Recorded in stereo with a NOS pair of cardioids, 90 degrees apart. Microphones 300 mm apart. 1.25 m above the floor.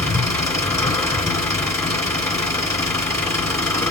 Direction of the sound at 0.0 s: 10° left.